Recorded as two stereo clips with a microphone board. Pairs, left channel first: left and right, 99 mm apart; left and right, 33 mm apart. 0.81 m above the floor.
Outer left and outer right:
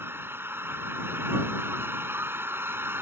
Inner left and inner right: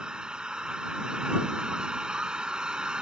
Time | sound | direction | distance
0.0 | an engine running | 25° right (ahead or behind) | ?